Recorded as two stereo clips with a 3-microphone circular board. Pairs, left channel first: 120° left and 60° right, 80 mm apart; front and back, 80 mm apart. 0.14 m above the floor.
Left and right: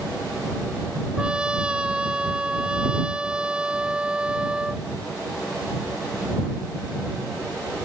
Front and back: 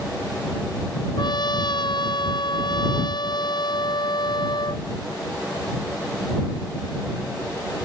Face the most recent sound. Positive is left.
turn(degrees=20)